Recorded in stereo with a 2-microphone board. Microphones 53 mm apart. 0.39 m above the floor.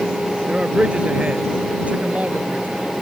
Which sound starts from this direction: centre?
A man speaking, at 0.5 s.